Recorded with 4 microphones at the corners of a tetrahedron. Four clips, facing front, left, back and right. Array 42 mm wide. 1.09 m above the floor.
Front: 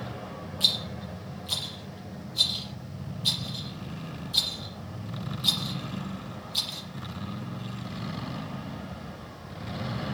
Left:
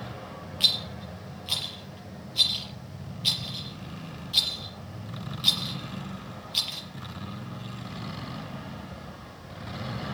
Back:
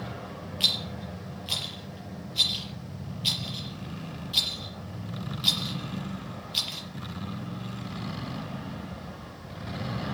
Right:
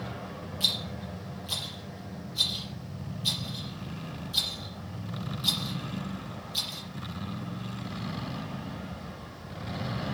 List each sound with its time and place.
0.6 s a rattle: 135° left, 5 m